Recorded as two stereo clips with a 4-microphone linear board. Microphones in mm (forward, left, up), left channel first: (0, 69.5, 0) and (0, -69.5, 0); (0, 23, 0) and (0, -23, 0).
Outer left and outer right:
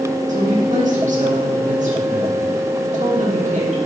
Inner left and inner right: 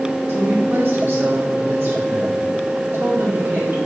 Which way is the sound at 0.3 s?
55° right (ahead or behind).